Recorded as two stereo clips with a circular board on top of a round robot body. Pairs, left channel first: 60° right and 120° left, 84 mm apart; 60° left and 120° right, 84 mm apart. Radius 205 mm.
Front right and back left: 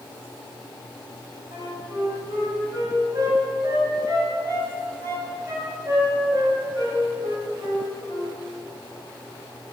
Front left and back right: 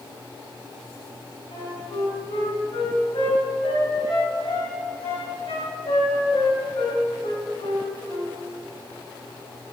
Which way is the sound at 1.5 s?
70° left.